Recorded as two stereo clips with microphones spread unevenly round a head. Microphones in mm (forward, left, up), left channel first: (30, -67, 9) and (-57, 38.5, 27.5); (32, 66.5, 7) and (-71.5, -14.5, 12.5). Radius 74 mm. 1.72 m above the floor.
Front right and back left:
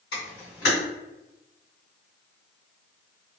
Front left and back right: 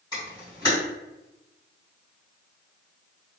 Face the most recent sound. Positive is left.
turn(degrees=-30)